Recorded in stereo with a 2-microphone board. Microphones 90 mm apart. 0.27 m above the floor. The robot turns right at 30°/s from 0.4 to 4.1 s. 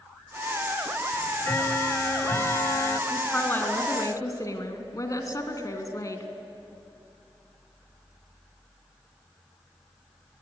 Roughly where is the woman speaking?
Centre.